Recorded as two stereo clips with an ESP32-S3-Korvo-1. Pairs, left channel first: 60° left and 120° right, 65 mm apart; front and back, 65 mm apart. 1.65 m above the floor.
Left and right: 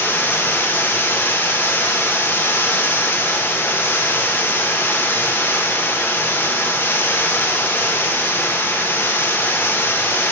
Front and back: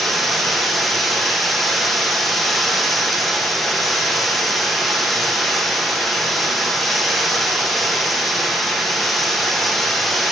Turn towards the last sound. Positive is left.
turn(degrees=90)